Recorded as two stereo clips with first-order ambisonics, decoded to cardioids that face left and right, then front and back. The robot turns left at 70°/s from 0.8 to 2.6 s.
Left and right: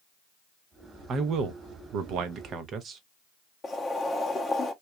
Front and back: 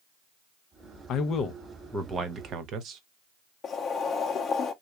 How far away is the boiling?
About 0.6 m.